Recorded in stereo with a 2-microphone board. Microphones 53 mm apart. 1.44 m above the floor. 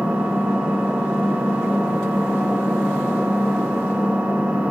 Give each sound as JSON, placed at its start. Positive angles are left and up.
{"t": 0.0, "sound": "an engine running", "side_deg": -30, "distance_m": 6.0}